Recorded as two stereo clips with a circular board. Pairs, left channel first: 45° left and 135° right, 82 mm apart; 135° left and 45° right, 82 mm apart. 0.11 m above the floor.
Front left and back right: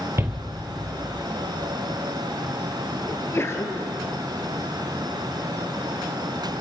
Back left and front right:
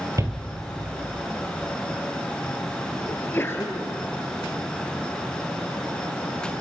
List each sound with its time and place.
0.2 s a shout: 80° right, 3 m
3.1 s a sneeze: 90° left, 2 m